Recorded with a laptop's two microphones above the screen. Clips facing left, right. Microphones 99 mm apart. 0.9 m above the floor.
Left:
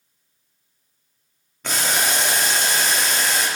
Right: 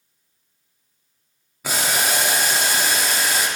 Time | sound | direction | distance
1.6 | boiling | 5° right (ahead or behind) | 0.7 m